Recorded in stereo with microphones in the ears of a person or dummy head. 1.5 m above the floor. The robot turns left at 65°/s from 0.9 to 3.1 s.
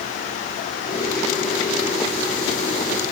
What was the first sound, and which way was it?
Only background noise.